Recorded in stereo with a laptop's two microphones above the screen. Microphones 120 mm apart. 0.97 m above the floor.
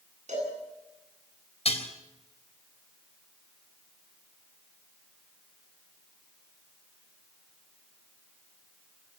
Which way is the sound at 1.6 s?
60° left (ahead or behind).